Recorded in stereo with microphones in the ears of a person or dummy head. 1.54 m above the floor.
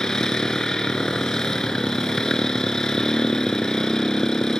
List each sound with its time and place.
0.0 s a motorcycle: 5° left (ahead or behind)